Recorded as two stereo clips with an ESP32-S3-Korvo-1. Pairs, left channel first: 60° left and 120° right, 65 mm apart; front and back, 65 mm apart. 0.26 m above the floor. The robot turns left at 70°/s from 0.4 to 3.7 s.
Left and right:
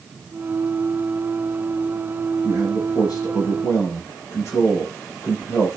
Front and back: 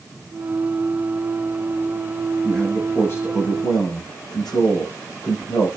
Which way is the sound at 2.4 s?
100° left.